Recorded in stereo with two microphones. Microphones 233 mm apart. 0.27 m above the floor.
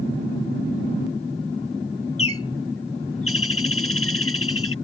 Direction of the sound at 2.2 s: 70° left (ahead or behind).